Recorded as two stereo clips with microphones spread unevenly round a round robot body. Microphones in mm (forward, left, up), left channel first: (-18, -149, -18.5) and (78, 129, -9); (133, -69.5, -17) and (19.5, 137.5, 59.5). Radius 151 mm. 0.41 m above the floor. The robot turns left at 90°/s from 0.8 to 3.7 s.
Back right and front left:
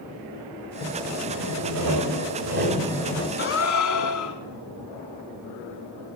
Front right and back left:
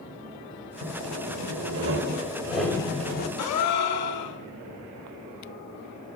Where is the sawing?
Straight behind, 1.7 m; by 3.3 s 45° right, 1.7 m.